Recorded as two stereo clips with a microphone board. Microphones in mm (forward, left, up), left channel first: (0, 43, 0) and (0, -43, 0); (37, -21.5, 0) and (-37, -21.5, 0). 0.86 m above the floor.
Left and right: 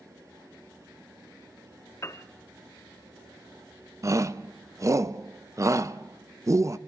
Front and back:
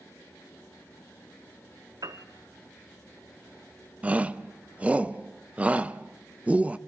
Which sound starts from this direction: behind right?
A shout, at 4.0 s.